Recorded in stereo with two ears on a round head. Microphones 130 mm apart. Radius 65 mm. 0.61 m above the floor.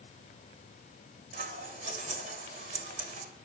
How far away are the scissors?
About 3.5 m.